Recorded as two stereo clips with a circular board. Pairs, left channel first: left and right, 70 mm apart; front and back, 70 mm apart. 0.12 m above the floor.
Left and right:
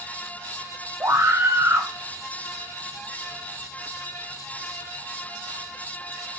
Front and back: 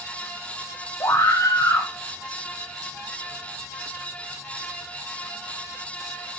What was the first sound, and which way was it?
A scream, 35° right.